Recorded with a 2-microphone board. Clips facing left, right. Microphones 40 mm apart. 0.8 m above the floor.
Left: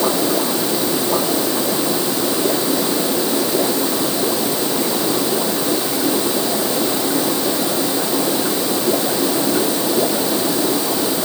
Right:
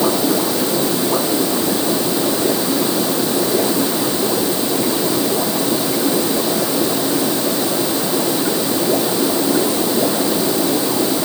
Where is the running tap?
I don't hear a running tap.